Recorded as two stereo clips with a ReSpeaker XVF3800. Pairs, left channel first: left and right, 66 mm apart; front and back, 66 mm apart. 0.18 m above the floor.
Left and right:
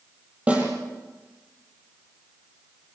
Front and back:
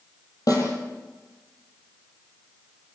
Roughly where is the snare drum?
Ahead.